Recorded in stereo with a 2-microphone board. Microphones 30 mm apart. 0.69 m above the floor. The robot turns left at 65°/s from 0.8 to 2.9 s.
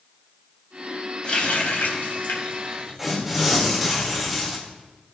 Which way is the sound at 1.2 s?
35° left (ahead or behind).